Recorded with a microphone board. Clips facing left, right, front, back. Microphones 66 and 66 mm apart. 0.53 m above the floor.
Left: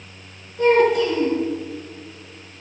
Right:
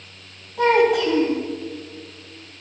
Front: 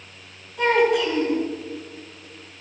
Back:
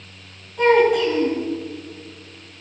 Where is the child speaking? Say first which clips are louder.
Left 1 dB, back 4 dB; 95° right, 3 m.